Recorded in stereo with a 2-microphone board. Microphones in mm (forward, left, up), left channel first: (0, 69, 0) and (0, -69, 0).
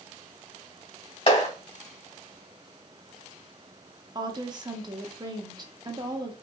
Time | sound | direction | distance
1.3 | a clap | 50° left (ahead or behind) | 2 m
4.2 | a woman speaking | 30° right (ahead or behind) | 0.7 m